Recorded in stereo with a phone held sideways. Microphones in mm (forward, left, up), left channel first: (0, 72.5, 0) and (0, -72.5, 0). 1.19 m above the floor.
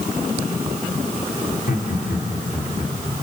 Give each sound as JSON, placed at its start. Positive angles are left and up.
{"t": 1.5, "sound": "laughter", "side_deg": 85, "distance_m": 3.5}